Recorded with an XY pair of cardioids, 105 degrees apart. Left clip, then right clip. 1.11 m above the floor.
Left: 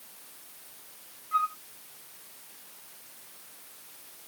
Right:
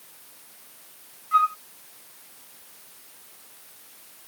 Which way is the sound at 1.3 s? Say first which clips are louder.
Right 7 dB; 45° right.